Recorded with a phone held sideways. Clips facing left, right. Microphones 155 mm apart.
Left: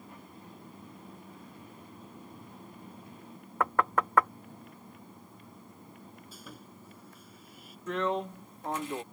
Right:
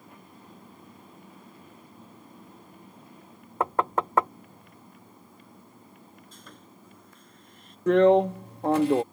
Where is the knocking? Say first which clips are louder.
Right 2 dB; 25° right (ahead or behind).